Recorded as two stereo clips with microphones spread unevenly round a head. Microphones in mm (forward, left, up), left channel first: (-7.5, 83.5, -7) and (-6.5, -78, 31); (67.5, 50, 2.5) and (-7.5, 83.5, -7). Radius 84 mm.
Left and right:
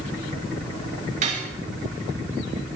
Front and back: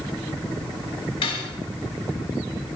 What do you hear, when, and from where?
1.2 s cutlery clinking: 45° right, 2.5 m